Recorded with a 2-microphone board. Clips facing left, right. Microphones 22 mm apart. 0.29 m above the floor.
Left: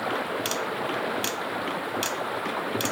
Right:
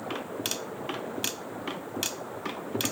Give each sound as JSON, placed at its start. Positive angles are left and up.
{"t": 0.0, "sound": "running water", "side_deg": 75}